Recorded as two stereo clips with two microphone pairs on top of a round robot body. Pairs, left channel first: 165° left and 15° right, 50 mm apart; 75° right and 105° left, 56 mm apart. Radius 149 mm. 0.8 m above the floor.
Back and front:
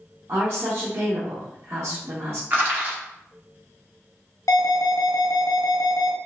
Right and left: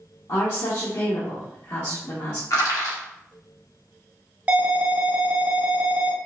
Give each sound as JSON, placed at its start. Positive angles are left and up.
{"t": 0.3, "sound": "a woman speaking", "azimuth_deg": -60, "distance_m": 1.1}
{"t": 2.5, "sound": "crushing", "azimuth_deg": -70, "distance_m": 1.4}
{"t": 4.5, "sound": "an alarm", "azimuth_deg": 170, "distance_m": 1.0}